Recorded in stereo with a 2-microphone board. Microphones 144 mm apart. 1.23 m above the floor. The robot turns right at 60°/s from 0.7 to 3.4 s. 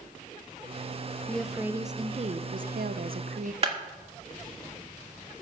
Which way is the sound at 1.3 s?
170° left.